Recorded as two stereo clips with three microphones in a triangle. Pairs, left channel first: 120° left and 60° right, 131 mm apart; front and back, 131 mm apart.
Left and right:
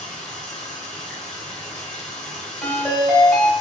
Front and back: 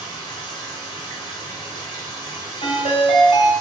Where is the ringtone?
35° left, 1.3 m.